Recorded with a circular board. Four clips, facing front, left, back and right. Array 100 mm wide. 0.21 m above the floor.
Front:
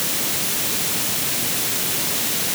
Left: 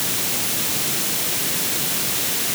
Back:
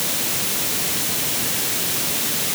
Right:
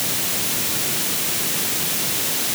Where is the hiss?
No hiss in this recording.